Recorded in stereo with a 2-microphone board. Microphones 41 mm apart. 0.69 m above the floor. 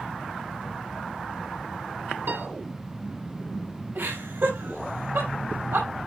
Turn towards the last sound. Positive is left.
turn(degrees=-65)  # may be behind; listen again after turning